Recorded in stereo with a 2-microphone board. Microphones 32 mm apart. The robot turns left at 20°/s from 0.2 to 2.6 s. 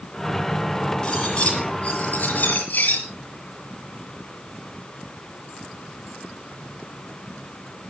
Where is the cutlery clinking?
155° left, 6.5 m; by 3.0 s 125° left, 6.5 m.